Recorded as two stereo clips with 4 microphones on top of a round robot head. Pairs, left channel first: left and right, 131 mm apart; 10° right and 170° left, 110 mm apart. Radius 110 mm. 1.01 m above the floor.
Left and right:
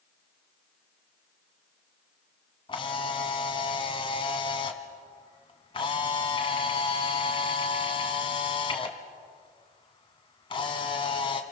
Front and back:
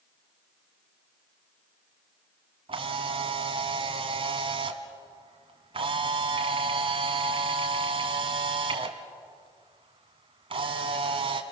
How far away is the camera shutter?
About 1.9 m.